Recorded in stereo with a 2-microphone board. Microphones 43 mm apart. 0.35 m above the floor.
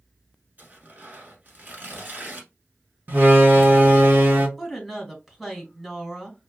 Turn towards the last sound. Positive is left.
turn(degrees=-5)  # may be behind; listen again after turning